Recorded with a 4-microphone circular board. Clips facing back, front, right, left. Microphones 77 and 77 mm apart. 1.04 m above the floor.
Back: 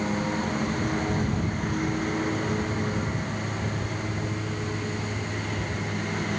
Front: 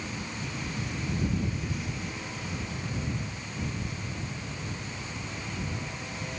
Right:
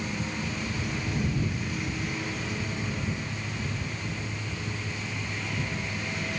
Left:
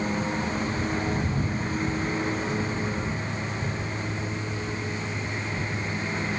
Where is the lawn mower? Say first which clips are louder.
Back 10 dB, left 5 dB; 140° left; by 6.4 s 145° left.